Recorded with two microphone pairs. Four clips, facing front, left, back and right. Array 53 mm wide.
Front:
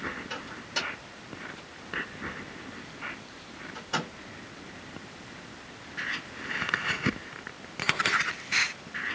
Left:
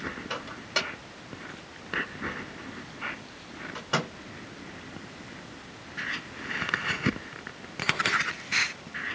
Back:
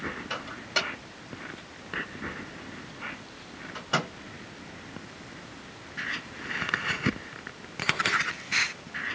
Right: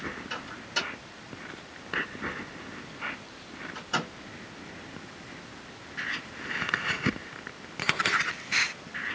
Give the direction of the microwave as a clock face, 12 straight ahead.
8 o'clock.